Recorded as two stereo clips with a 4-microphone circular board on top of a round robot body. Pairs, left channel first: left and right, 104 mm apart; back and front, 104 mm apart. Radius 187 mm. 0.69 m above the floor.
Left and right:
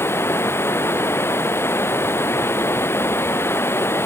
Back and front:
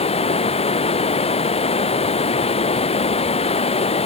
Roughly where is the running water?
Behind.